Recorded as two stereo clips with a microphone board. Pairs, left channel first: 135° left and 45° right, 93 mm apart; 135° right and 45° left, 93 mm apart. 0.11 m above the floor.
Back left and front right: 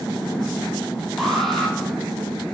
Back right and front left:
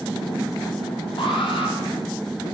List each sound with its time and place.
1.2 s an alarm: 140° right, 4 m